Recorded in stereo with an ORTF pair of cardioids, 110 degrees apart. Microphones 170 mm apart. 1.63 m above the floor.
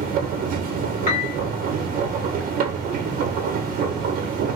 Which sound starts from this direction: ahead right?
A machine running, at 0.0 s.